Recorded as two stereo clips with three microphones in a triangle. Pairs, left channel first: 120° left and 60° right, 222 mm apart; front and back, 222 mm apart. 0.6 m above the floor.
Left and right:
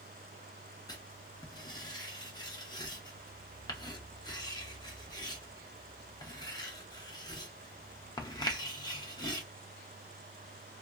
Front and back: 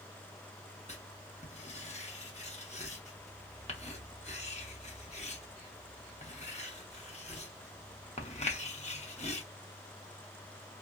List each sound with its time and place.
0.9 s writing: 50° left, 0.6 m